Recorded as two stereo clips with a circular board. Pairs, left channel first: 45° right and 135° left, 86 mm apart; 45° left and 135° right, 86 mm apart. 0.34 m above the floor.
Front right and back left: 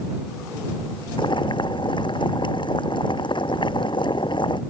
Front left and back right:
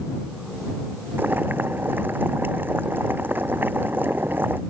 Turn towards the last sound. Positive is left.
turn(degrees=-70)